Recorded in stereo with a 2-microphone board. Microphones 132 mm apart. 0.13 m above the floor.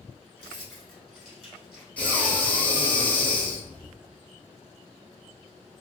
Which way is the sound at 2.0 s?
10° left (ahead or behind).